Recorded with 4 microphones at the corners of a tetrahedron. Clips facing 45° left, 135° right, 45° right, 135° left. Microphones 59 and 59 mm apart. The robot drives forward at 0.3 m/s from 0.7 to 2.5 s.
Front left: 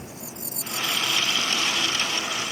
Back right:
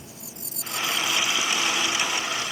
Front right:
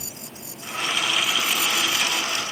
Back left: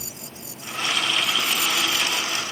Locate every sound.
Only background noise.